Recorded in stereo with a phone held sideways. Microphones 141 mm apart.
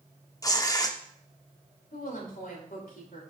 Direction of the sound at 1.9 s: 85° left.